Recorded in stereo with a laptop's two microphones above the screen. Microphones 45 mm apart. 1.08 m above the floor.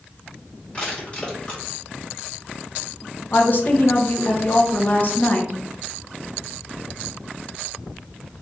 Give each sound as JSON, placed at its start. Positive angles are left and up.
{"t": 0.7, "sound": "crushing", "side_deg": 30, "distance_m": 2.0}
{"t": 3.3, "sound": "a woman speaking", "side_deg": 45, "distance_m": 1.1}